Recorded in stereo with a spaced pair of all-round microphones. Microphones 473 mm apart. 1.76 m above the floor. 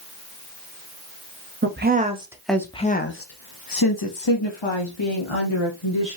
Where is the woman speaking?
25° right (ahead or behind), 1.0 m; by 6.2 s 85° left, 1.8 m.